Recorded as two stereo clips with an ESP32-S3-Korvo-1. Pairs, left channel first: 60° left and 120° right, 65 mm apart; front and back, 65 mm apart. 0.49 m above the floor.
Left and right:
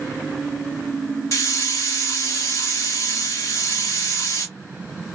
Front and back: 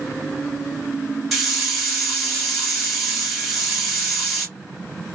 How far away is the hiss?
About 2.5 m.